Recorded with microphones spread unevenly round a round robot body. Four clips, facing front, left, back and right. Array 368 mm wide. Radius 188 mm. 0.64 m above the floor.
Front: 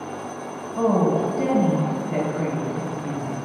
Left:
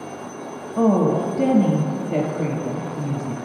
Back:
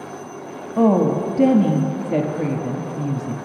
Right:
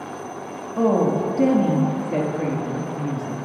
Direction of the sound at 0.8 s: 175° left.